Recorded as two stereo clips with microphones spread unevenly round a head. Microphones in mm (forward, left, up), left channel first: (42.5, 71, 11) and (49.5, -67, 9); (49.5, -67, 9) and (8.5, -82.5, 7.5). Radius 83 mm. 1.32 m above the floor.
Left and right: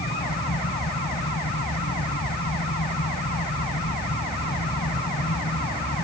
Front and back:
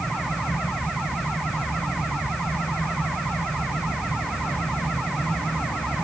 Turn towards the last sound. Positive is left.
turn(degrees=95)